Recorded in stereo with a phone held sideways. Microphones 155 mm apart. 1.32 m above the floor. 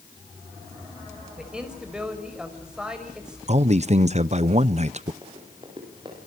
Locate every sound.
1.4 s a man speaking: 5° right (ahead or behind), 5 m
3.5 s a man speaking: 45° right (ahead or behind), 0.7 m
5.2 s running footsteps: 30° right (ahead or behind), 8.5 m